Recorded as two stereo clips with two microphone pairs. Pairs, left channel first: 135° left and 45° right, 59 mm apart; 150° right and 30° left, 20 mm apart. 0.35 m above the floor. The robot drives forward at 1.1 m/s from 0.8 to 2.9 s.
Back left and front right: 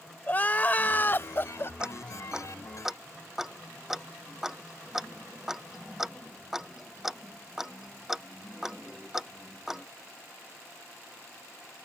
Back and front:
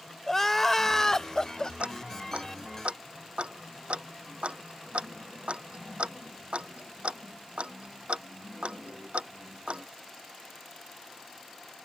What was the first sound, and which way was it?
Crying, 155° left.